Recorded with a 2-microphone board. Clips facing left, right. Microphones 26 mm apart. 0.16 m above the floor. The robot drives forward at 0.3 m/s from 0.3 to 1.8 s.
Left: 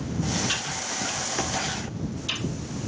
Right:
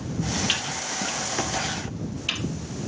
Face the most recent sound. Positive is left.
turn(degrees=-65)  # may be behind; listen again after turning